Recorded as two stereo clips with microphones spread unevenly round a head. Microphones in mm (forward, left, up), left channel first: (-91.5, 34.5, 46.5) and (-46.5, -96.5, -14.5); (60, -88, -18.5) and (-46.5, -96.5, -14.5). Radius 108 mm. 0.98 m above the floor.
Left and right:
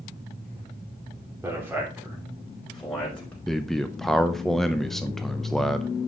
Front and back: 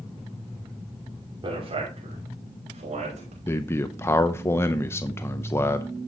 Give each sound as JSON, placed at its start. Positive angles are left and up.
{"t": 1.4, "sound": "a man speaking", "azimuth_deg": -140, "distance_m": 3.0}
{"t": 3.5, "sound": "a man speaking", "azimuth_deg": -25, "distance_m": 0.5}